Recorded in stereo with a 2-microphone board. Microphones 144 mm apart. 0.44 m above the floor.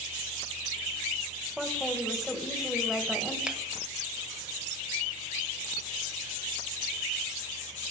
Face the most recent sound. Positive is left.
turn(degrees=-5)  # may be behind; listen again after turning